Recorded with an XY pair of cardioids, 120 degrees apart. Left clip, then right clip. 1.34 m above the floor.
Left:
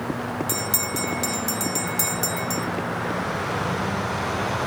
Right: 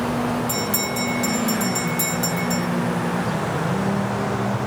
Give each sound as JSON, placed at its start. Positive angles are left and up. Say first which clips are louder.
{"t": 0.5, "sound": "a bell", "louder": "right 3 dB", "azimuth_deg": 25, "distance_m": 1.5}